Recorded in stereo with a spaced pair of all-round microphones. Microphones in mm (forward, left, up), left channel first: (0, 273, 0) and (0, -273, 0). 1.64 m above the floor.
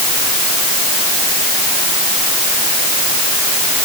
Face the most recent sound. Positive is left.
No sound to turn to.